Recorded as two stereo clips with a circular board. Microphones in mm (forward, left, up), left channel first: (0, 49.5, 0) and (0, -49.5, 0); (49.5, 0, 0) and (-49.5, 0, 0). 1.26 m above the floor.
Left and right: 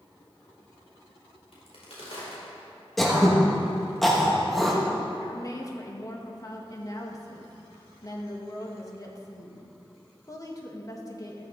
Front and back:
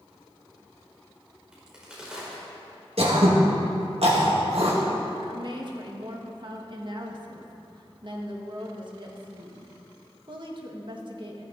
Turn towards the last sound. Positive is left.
turn(degrees=145)